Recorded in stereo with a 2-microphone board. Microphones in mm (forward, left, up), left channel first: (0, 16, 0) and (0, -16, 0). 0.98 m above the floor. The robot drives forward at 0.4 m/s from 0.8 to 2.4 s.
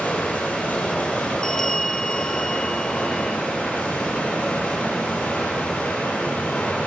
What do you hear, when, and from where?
0.0 s running water: 60° left (ahead or behind), 9 m; by 6.9 s 65° left (ahead or behind), 9 m
1.4 s a bell: 15° left (ahead or behind), 0.8 m; by 3.4 s 20° left (ahead or behind), 0.6 m